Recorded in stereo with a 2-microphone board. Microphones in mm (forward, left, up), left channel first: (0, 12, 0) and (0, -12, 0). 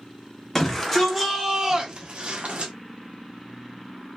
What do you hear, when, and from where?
0.6 s a shout: 10° left (ahead or behind), 0.9 m; by 2.7 s 55° right (ahead or behind), 1.0 m